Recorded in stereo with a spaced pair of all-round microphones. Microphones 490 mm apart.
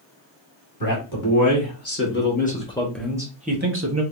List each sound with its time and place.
0.8 s a man speaking: 45° left (ahead or behind), 1.6 m; by 4.0 s 35° right (ahead or behind), 0.9 m